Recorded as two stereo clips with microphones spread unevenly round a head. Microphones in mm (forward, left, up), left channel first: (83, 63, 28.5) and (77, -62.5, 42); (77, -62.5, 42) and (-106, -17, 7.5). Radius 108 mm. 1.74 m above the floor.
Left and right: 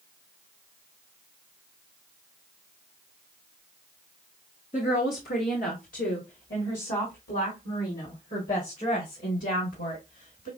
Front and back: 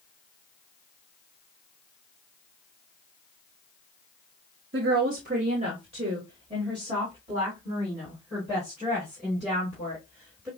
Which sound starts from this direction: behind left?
A woman speaking, at 4.7 s.